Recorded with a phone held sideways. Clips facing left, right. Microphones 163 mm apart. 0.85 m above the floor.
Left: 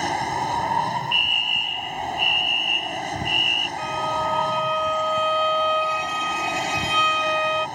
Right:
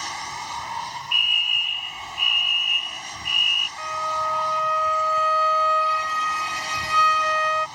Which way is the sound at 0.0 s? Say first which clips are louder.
Left 10 dB; 55° left (ahead or behind).